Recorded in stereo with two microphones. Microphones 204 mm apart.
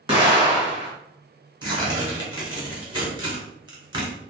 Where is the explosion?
25° right (ahead or behind), 1.3 m.